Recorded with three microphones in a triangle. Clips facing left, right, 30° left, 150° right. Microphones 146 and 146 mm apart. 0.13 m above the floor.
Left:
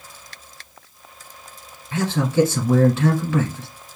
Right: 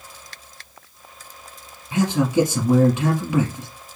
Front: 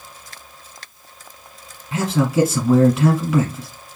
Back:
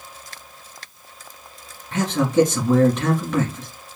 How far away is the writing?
No writing in this recording.